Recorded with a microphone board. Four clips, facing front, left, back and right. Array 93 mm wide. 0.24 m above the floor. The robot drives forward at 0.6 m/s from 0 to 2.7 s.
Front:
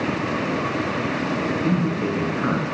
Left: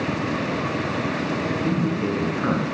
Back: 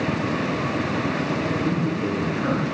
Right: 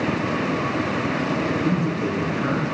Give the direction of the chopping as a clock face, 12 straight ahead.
I don't hear chopping.